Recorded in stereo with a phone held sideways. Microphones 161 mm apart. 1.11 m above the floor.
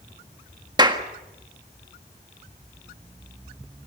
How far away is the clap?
About 1.7 m.